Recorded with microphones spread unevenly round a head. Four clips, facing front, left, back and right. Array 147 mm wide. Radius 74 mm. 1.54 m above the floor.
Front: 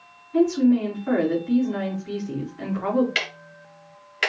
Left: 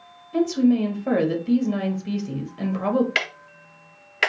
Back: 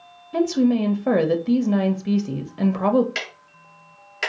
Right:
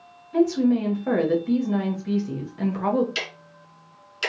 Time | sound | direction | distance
0.3 | a woman speaking | 170° left | 1.5 m
3.1 | ticking | 85° left | 0.8 m